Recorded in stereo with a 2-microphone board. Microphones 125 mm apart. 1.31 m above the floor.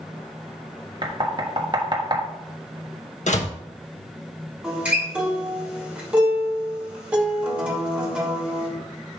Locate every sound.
1.0 s knocking: 40° right (ahead or behind), 1.4 m
3.3 s a door slam: 70° left (ahead or behind), 1.0 m
4.6 s a guitar: 10° right (ahead or behind), 2 m